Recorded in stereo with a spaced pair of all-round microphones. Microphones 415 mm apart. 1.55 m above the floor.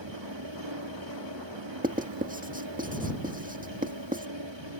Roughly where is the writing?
Centre.